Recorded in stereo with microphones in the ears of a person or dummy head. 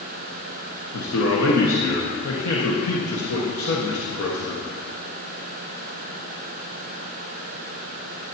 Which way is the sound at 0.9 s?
70° left (ahead or behind).